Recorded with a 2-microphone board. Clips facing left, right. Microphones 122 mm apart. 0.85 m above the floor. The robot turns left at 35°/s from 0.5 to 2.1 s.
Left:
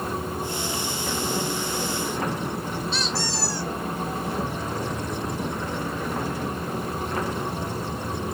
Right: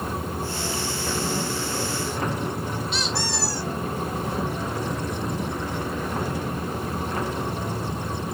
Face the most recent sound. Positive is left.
turn(degrees=-20)  # may be behind; listen again after turning